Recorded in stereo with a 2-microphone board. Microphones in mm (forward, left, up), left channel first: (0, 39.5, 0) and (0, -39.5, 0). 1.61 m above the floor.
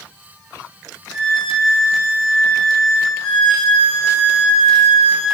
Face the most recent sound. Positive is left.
turn(degrees=-20)  # may be behind; listen again after turning